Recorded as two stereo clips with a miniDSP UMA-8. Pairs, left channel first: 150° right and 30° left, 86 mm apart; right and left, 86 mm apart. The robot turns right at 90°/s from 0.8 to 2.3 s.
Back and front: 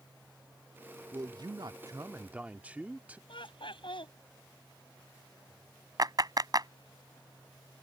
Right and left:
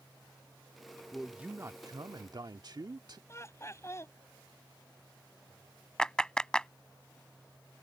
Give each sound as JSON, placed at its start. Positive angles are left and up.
{"t": 1.1, "sound": "a man speaking", "azimuth_deg": -10}
{"t": 3.3, "sound": "laughter", "azimuth_deg": -145}
{"t": 6.0, "sound": "a clap", "azimuth_deg": -10}